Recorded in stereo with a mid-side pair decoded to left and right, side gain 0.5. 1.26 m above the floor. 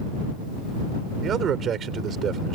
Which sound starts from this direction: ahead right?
A man speaking, at 1.2 s.